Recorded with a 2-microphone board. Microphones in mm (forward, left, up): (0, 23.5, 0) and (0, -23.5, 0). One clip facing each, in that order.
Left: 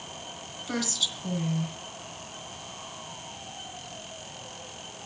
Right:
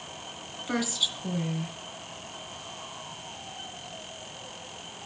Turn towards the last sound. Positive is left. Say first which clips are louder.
# right 2 dB
turn(degrees=-15)  # may be behind; listen again after turning